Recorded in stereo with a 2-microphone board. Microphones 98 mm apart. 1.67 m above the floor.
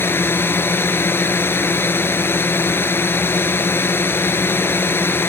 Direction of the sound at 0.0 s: 25° left (ahead or behind).